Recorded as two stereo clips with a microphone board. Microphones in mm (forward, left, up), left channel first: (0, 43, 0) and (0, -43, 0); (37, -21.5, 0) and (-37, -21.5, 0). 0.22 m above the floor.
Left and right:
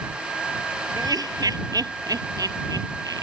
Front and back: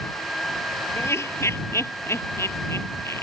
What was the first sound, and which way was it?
Laughter, 55° right.